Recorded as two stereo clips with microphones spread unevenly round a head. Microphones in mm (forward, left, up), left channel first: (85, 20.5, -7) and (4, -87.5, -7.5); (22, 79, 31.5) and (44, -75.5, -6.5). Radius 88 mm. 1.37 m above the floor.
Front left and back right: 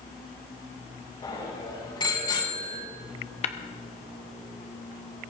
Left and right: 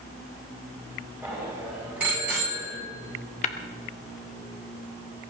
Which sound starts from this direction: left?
Tapping, at 3.4 s.